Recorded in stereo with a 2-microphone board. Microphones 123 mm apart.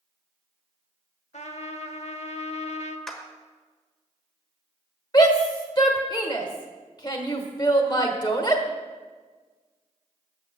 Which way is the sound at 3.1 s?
5° left (ahead or behind).